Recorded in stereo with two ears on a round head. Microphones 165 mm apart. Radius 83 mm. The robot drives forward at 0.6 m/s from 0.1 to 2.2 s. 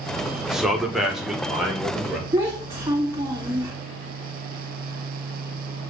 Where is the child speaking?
15° right (ahead or behind), 2 m.